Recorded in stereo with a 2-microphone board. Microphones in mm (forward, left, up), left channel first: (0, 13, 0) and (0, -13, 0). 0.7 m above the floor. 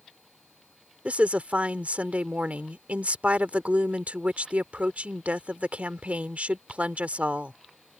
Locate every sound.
1.1 s a woman speaking: 70° right (ahead or behind)